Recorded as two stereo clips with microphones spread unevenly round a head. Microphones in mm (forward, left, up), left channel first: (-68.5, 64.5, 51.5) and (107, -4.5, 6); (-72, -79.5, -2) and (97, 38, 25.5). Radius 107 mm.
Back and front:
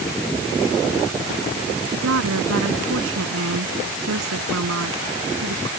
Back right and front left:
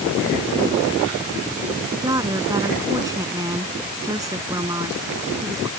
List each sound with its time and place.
1.9 s a woman speaking: 40° right